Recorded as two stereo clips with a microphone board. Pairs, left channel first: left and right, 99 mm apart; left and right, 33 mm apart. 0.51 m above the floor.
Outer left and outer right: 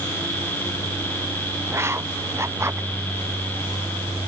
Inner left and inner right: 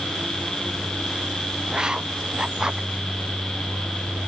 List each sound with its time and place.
1.7 s writing: 25° right (ahead or behind)